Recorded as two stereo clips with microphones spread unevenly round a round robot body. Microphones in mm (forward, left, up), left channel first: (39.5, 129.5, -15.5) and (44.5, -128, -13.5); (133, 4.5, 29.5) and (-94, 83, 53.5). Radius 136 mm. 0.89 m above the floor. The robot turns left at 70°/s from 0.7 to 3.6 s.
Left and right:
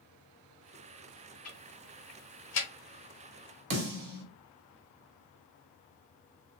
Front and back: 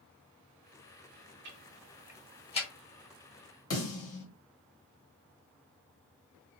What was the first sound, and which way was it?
Ticking, 125° left.